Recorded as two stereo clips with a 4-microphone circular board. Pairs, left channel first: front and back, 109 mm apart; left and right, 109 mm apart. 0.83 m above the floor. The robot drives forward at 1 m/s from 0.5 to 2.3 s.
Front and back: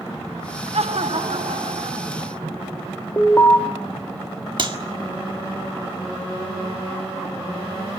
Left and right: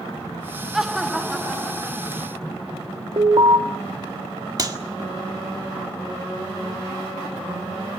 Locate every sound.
0.7 s laughter: 175° right, 1.1 m; by 2.6 s straight behind, 2.5 m
3.2 s an alarm: 60° right, 2.5 m
4.6 s a clap: 140° right, 1.8 m